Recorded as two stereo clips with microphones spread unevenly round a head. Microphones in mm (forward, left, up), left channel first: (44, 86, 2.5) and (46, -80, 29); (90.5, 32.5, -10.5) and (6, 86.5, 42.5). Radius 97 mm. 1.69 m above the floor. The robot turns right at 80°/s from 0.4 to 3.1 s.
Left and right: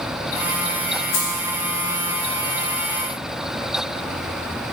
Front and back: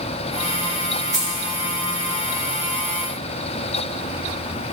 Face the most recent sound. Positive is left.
turn(degrees=-100)